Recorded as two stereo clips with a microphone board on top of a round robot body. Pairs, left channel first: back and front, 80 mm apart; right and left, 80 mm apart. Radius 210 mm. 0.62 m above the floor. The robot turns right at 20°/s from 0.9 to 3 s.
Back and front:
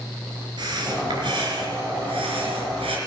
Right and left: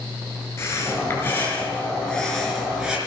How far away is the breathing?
About 4 m.